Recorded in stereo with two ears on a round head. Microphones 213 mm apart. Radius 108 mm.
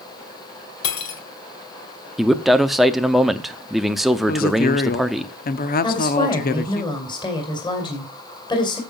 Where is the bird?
No bird in this recording.